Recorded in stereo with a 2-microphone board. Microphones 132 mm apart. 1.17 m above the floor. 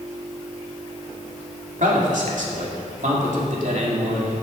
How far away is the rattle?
No rattle in this recording.